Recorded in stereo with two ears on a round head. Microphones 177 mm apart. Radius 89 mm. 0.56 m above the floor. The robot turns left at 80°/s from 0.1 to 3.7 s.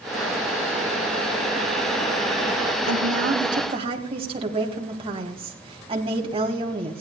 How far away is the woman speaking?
About 3 m.